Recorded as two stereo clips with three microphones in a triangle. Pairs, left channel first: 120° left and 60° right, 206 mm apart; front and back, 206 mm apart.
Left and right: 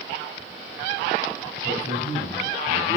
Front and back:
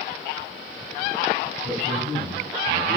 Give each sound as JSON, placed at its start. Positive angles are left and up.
{"t": 1.6, "sound": "a man speaking", "azimuth_deg": 95, "distance_m": 1.9}